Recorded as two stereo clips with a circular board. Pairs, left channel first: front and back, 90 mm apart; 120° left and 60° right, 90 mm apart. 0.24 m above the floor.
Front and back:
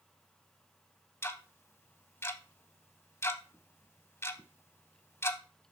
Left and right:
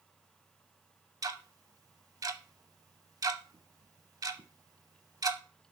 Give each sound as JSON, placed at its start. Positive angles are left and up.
{"t": 1.2, "sound": "ticking", "azimuth_deg": -45, "distance_m": 0.6}